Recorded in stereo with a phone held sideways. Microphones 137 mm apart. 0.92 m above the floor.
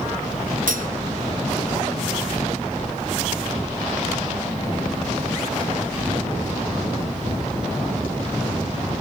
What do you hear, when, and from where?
0.7 s cutlery clinking: 80° right, 0.7 m